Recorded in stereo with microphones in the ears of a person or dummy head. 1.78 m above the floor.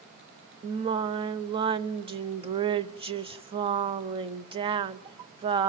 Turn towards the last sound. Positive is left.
turn(degrees=-25)  # may be behind; listen again after turning